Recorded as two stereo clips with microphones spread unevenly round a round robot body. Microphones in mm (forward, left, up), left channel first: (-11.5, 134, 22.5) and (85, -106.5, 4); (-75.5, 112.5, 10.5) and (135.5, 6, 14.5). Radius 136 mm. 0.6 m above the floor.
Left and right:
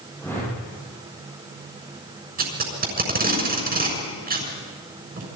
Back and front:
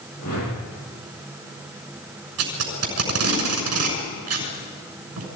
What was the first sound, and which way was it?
A whoosh, 165° right.